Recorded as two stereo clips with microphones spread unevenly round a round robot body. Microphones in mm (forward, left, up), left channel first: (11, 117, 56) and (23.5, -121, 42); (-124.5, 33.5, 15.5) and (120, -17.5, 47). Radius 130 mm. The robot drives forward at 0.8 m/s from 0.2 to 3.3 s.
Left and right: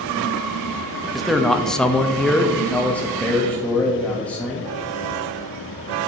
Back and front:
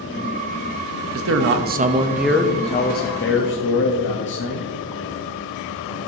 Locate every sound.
1.1 s a man speaking: straight ahead, 1.1 m; by 4.7 s straight behind, 1.1 m